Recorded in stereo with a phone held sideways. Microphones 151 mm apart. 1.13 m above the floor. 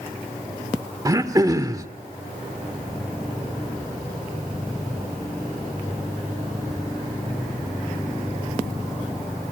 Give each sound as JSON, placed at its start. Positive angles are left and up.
{"t": 1.1, "sound": "throat clearing", "side_deg": -25, "distance_m": 1.4}